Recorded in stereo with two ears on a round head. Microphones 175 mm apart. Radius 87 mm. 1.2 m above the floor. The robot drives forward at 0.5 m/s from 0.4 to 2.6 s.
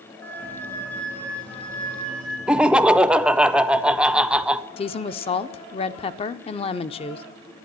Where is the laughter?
5° right (ahead or behind), 0.5 m.